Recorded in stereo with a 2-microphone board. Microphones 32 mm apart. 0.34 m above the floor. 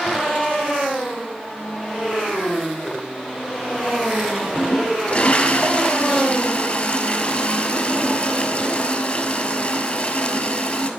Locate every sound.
4.4 s a toilet flushing: 45° left (ahead or behind), 1.1 m